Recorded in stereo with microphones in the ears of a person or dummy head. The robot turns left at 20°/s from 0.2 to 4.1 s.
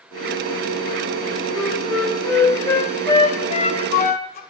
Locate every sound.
1.6 s a flute: 5° right (ahead or behind), 0.5 m; by 4.4 s 45° left (ahead or behind), 0.5 m